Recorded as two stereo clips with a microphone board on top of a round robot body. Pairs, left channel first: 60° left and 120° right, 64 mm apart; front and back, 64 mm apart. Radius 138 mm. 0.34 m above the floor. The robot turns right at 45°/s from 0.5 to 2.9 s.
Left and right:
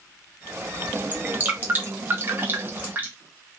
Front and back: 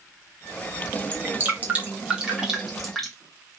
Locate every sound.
1.1 s dripping: 165° right, 1.1 m; by 3.1 s 85° right, 1.1 m